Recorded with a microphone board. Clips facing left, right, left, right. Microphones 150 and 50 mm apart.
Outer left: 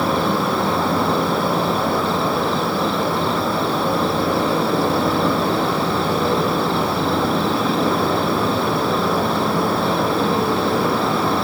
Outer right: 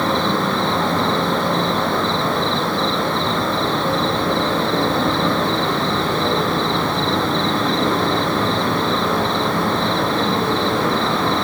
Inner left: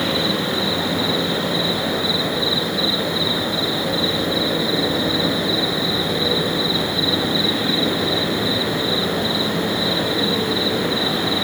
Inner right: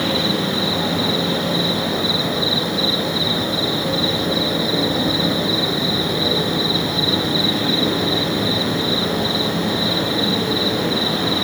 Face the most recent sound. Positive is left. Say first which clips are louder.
# even, inner right 1 dB
turn(degrees=10)  # may be behind; listen again after turning